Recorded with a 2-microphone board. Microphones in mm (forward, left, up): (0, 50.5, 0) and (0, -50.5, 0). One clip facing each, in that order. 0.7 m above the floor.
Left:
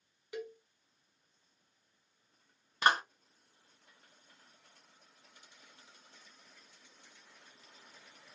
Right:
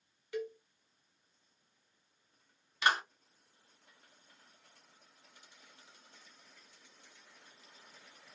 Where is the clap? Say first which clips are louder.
Left 2 dB; 40° left (ahead or behind), 1.0 m.